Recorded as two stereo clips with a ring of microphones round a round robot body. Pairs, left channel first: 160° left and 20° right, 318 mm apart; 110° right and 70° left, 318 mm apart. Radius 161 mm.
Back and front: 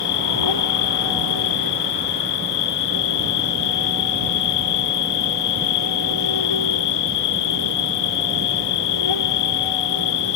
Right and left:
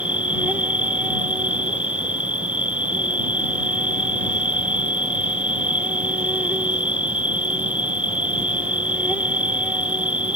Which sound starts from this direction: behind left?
An insect, at 0.0 s.